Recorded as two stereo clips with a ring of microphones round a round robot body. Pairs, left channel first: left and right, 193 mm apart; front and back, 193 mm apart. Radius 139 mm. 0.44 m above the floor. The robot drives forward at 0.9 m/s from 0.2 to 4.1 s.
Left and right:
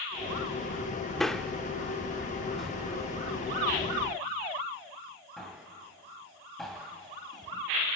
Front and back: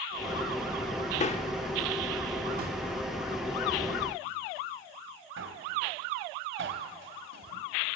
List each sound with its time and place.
1.2 s a man speaking: 5° left, 0.9 m; by 7.6 s straight behind, 2 m